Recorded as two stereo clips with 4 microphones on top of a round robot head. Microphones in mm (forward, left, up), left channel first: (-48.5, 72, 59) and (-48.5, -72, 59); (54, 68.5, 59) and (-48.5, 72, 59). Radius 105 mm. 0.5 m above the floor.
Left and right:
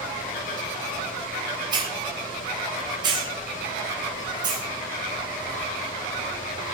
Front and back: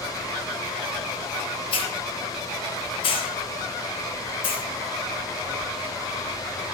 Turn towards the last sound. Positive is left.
turn(degrees=-30)